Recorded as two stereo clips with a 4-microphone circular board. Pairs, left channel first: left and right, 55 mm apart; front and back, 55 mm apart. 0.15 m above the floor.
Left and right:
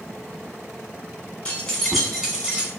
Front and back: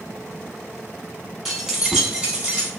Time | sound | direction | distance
1.4 | keys jangling | 95° left | 0.7 m